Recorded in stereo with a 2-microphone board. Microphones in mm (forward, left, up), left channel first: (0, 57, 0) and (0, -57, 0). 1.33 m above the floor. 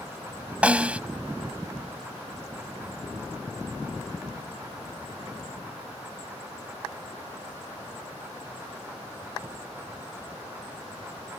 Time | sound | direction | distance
0.6 | a snare drum | 10° right (ahead or behind) | ?